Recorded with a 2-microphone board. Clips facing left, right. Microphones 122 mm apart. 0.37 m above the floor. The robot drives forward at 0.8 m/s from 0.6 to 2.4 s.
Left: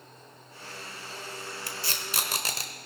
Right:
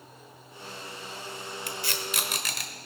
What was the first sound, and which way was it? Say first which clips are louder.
Tape being pulled: right 3 dB; 35° left (ahead or behind).